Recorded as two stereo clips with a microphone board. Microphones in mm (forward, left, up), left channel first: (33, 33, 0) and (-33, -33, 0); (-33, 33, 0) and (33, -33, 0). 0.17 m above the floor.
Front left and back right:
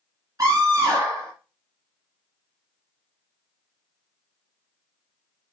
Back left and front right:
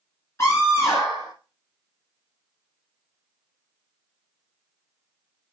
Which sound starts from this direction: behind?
A scream, at 0.4 s.